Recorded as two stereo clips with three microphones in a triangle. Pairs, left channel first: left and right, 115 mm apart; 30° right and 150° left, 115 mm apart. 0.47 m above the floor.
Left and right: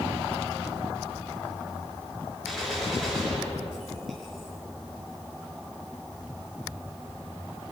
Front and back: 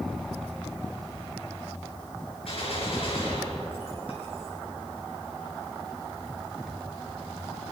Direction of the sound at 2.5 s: Straight ahead.